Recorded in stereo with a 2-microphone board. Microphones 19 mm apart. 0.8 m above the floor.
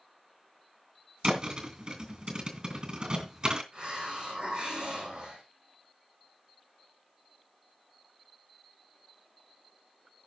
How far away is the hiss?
About 7 m.